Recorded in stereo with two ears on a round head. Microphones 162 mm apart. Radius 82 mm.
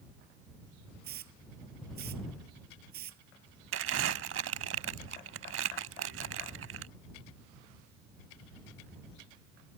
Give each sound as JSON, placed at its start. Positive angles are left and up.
{"t": 1.0, "sound": "a hiss", "side_deg": -60}
{"t": 3.7, "sound": "crumpling", "side_deg": -75}